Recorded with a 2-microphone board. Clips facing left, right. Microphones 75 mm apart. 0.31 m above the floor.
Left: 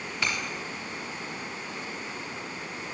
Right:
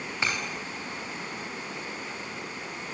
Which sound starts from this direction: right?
Breaking glass, at 0.2 s.